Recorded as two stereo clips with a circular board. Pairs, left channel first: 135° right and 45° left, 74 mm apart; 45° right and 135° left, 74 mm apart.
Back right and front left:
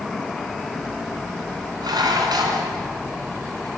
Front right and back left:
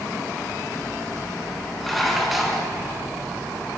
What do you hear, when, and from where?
1.8 s dishes clattering: 45° left, 5 m